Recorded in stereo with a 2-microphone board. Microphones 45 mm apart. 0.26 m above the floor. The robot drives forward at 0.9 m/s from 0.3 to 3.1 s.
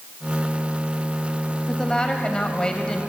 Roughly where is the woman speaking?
Centre.